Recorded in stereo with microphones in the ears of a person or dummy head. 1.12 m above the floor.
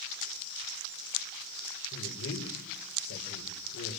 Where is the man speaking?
85° left, 4.5 m.